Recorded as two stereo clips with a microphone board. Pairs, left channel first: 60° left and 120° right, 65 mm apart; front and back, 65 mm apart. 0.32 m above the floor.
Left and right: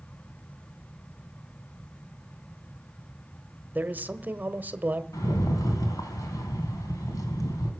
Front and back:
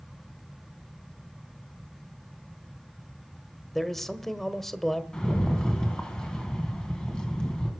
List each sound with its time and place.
3.8 s a man speaking: 80° right, 1.1 m
5.1 s a rattle: 75° left, 3 m